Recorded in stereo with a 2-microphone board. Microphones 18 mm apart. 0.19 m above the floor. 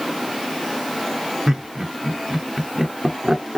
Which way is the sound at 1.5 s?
45° right (ahead or behind).